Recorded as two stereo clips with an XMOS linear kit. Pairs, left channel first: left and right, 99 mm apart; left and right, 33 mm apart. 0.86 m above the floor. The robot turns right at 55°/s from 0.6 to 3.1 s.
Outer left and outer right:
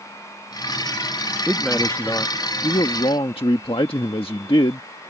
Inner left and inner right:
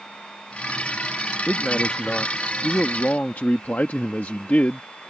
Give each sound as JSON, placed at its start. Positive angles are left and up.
{"t": 1.5, "sound": "a man speaking", "azimuth_deg": 0}